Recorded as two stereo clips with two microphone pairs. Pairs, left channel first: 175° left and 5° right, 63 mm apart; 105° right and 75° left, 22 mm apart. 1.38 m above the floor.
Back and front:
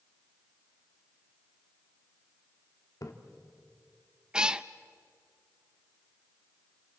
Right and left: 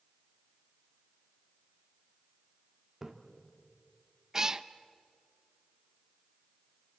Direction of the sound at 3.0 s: 145° left.